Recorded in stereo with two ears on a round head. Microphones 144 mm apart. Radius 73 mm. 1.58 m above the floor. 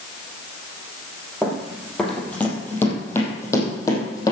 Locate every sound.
1.4 s running footsteps: centre (ahead or behind), 3 m; by 4.3 s 20° left (ahead or behind), 4 m